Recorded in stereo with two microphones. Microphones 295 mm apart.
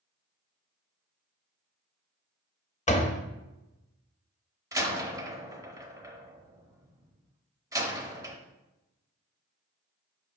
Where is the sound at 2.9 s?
25° left (ahead or behind), 0.7 m.